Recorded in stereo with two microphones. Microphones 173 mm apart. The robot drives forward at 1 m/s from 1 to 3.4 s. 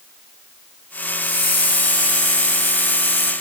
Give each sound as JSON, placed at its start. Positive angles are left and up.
{"t": 1.2, "sound": "a hiss", "side_deg": 60, "distance_m": 2.0}